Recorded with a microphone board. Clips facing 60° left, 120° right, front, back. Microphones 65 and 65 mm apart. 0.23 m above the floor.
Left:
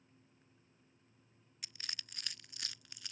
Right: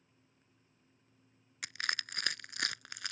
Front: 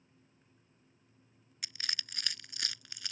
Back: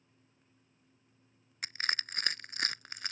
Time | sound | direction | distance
1.6 | crushing | 135° right | ?